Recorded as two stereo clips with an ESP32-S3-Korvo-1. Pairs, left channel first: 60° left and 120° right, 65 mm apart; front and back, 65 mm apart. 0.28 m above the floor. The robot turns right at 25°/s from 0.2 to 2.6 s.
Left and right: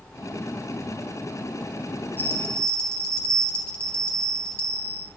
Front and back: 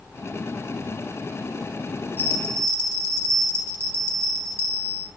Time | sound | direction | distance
2.2 | a bell | 120° left | 2.5 m